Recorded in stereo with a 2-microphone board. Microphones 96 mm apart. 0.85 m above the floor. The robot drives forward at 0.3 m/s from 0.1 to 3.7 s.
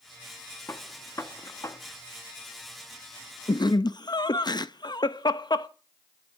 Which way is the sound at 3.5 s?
50° left (ahead or behind).